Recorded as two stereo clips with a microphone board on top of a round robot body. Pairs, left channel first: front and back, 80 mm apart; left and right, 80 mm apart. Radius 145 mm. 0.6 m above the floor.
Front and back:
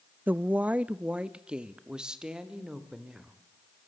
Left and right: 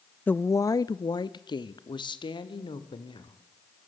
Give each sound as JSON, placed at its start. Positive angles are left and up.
{"t": 0.3, "sound": "a woman speaking", "azimuth_deg": 135, "distance_m": 0.6}